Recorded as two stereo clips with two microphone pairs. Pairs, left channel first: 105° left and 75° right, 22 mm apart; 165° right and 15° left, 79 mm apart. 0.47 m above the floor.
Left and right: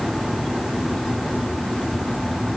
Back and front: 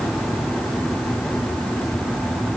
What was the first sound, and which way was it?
Only background noise.